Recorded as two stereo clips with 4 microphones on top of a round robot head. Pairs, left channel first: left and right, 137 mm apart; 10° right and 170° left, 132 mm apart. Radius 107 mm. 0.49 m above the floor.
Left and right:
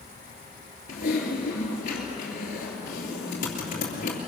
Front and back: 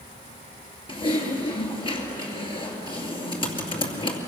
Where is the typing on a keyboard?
45° left, 2.5 m.